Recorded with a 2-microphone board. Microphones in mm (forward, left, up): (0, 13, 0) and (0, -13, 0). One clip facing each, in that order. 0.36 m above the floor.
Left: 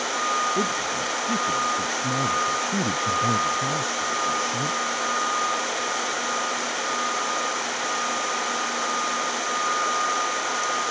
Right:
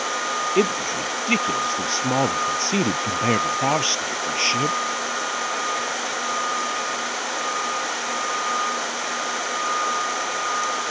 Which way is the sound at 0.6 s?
80° right.